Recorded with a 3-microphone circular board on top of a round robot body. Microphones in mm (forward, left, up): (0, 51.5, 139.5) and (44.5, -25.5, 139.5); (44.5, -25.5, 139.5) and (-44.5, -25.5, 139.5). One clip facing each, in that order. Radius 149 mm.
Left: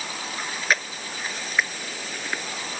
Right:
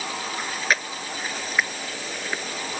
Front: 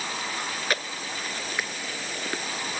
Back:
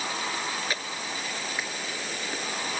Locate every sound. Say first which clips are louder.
0.4 s chewing: even, front 2 dB; 30° left